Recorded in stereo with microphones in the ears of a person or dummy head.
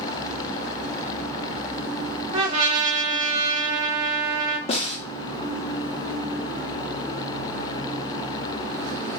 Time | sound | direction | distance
2.3 | a trumpet | 40° right (ahead or behind) | 1.0 m
4.7 | a snare drum | 30° left (ahead or behind) | 0.8 m